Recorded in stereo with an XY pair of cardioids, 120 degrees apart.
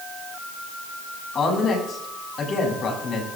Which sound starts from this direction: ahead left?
A woman speaking, at 1.4 s.